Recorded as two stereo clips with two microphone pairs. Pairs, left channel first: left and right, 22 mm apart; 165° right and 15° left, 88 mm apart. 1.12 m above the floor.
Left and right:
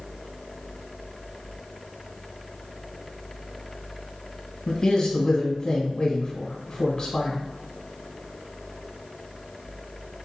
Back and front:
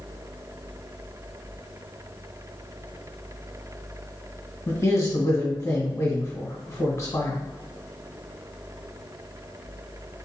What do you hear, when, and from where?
4.7 s a man speaking: 140° left, 1.2 m